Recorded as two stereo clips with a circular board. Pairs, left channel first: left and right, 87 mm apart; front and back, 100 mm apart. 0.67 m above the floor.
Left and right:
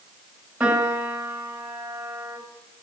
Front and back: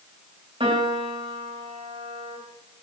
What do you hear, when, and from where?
0.6 s a piano: 165° right, 4 m